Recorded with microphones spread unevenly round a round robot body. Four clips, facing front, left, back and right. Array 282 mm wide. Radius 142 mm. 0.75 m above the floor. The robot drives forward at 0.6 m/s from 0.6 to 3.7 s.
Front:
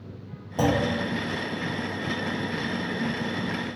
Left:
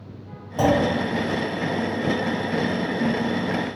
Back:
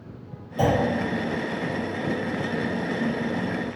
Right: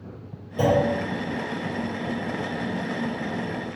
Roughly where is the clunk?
Ahead.